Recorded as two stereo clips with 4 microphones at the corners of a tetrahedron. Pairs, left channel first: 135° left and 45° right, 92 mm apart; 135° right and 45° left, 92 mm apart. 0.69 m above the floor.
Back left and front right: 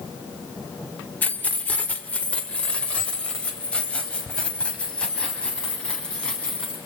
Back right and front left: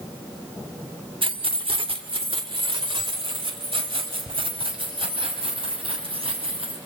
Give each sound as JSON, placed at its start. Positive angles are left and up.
{"t": 1.2, "sound": "keys jangling", "azimuth_deg": 65, "distance_m": 0.9}